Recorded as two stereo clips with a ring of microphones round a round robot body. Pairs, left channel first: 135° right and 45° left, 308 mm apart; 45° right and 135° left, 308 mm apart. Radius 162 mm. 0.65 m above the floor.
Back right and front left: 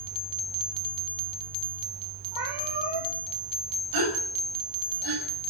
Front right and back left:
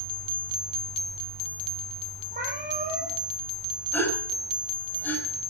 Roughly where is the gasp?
Ahead left.